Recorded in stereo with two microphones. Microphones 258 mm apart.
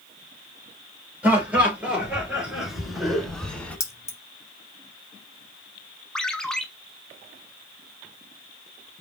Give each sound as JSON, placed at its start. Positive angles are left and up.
{"t": 1.2, "sound": "laughter", "side_deg": -5, "distance_m": 3.0}
{"t": 3.8, "sound": "keys jangling", "side_deg": 10, "distance_m": 1.0}
{"t": 6.2, "sound": "a ringtone", "side_deg": 5, "distance_m": 0.8}